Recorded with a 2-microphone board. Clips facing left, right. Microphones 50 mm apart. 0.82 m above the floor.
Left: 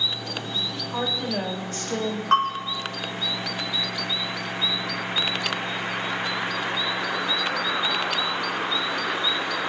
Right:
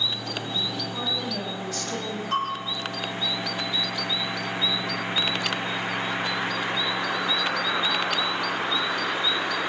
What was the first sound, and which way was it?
A woman speaking, 40° left (ahead or behind).